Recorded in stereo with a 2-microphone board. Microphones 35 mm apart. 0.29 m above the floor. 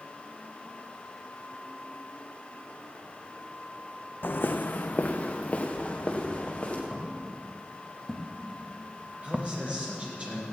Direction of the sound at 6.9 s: Centre (ahead or behind).